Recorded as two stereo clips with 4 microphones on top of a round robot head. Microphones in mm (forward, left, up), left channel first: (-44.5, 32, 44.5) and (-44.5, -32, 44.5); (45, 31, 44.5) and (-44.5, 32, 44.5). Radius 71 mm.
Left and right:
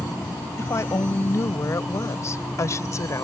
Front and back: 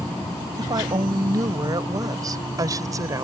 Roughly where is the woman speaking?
Behind left.